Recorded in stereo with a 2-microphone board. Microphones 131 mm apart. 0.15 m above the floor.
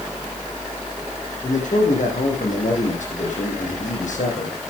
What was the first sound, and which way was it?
A man speaking, 70° left (ahead or behind).